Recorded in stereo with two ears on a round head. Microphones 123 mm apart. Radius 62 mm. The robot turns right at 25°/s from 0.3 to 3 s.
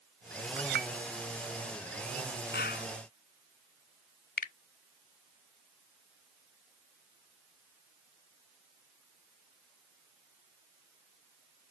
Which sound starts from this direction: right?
A clink, at 0.6 s.